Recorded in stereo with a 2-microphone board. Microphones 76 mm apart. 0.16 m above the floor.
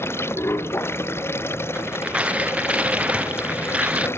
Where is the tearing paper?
15° right (ahead or behind).